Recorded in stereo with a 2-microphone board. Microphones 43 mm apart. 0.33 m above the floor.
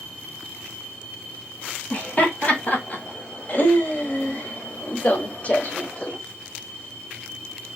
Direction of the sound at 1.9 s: 35° left (ahead or behind).